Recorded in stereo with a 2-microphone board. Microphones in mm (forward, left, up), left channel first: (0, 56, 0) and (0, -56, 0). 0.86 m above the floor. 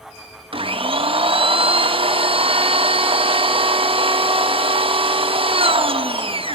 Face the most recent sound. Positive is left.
turn(degrees=-55)  # may be behind; listen again after turning